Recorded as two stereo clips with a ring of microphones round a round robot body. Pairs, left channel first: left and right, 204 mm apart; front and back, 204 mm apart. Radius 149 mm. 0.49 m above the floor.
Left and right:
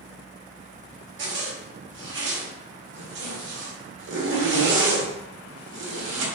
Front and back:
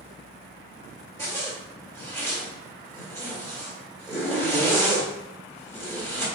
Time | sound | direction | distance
1.2 | a zipper | 75° right | 1.1 m